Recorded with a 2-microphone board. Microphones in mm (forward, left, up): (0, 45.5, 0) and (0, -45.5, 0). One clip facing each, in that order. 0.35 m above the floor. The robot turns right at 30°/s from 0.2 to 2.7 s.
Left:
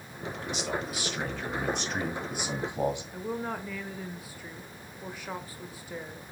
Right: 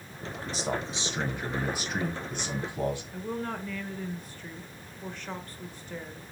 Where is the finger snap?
I don't hear a finger snap.